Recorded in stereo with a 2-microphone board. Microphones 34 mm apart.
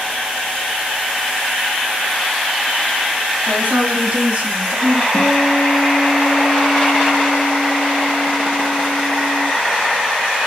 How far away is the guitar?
About 3 m.